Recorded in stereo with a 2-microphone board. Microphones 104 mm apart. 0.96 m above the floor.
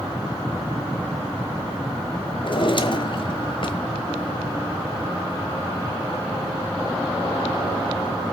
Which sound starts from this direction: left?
A drawer, at 2.4 s.